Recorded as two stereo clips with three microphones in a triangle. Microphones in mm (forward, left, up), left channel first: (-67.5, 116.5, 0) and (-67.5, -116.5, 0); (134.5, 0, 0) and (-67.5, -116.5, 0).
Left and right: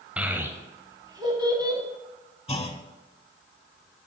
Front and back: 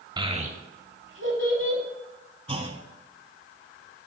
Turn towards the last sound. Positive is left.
turn(degrees=150)